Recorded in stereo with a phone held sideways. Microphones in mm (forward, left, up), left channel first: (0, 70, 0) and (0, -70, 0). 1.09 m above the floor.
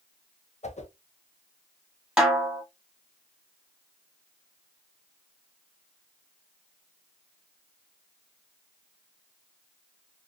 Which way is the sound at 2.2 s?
5° right (ahead or behind).